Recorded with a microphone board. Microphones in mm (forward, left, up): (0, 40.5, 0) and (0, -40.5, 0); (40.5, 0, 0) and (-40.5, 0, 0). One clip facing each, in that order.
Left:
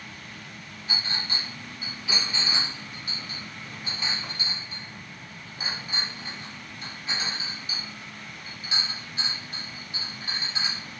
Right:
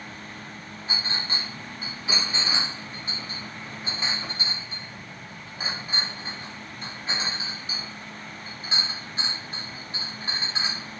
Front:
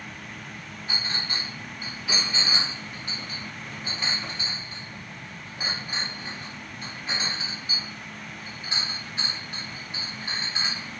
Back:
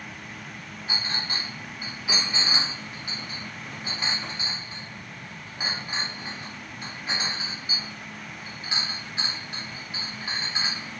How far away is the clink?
About 0.8 m.